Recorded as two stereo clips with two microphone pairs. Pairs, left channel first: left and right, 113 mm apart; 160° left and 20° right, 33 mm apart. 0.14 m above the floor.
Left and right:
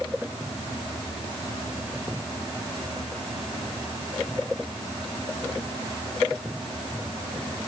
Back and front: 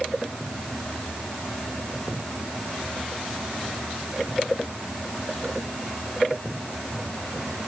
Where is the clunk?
No clunk in this recording.